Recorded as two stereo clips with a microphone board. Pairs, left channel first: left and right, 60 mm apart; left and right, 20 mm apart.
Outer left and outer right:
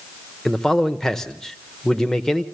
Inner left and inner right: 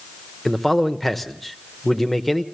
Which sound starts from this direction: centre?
A man speaking, at 0.5 s.